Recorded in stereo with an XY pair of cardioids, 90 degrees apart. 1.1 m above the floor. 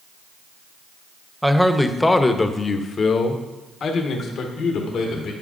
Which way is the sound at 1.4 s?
5° right.